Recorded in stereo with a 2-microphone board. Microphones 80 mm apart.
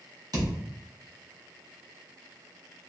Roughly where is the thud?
Right.